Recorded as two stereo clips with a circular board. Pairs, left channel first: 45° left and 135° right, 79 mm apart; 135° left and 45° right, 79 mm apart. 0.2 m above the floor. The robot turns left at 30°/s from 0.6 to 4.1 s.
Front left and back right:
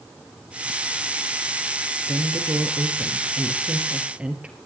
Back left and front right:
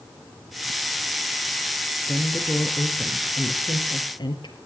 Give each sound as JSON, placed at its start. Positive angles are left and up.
{"t": 2.1, "sound": "a woman speaking", "azimuth_deg": -150, "distance_m": 4.0}